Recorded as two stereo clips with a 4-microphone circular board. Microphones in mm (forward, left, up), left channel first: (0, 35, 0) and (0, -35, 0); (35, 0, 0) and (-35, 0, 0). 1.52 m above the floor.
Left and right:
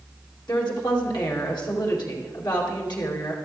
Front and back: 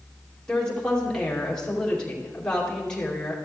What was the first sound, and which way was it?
A woman speaking, 80° left.